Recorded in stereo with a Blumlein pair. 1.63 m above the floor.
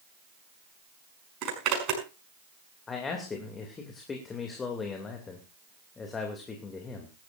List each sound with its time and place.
1.4 s a zipper: 40° right, 5.5 m
2.9 s a man speaking: 20° left, 2.5 m